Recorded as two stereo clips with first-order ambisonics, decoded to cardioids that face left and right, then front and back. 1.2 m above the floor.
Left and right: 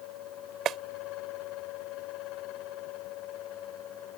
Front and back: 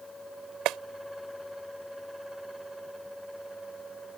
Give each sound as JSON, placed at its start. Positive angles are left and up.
{"t": 0.7, "sound": "a clap", "azimuth_deg": -145}